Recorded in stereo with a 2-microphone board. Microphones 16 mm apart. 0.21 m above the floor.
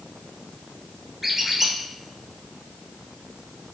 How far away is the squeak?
About 1.0 m.